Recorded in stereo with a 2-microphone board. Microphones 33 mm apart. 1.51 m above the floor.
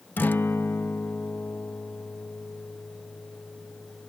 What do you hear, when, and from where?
0.2 s a guitar: 70° left (ahead or behind)